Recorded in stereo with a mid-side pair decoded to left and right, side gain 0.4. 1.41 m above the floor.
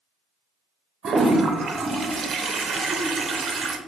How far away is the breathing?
No breathing in this recording.